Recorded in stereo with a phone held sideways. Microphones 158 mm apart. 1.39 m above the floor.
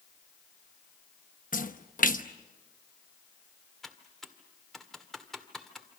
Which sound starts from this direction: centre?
Typing on a keyboard, at 3.8 s.